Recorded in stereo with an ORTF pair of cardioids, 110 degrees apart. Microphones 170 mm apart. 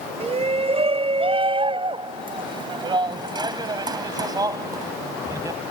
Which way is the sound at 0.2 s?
35° right.